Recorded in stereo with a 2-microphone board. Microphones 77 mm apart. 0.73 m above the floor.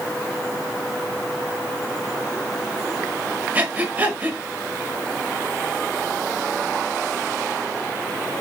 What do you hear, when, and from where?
3.5 s breathing: 25° right (ahead or behind), 0.8 m